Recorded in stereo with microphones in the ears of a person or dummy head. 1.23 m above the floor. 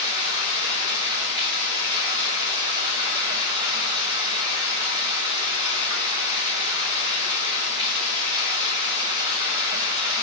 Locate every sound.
0.0 s running water: 15° right (ahead or behind), 3.5 m